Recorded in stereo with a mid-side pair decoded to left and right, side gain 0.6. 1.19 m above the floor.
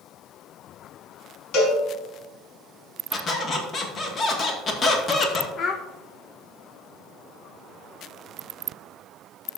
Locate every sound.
1.5 s a cowbell: 65° left, 4 m
3.1 s a squeak: 35° left, 1.9 m
5.6 s a child speaking: 40° left, 0.8 m